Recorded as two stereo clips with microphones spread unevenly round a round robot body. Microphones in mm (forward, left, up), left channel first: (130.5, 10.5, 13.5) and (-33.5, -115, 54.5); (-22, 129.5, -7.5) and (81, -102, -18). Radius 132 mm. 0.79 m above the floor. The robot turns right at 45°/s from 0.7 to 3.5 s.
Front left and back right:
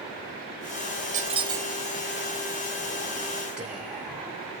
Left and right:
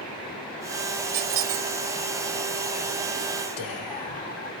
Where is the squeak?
85° right, 0.5 m; by 1.7 s 60° right, 0.5 m.